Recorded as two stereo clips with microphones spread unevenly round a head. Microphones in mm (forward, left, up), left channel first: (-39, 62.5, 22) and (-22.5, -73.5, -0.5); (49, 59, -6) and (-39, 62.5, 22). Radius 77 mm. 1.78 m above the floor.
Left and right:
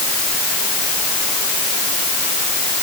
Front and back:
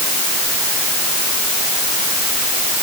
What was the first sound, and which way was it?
Only background noise.